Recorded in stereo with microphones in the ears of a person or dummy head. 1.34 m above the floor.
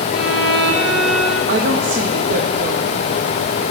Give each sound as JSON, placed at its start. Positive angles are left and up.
{"t": 0.1, "sound": "a violin", "side_deg": -5, "distance_m": 1.7}
{"t": 1.5, "sound": "a woman speaking", "side_deg": -50, "distance_m": 0.7}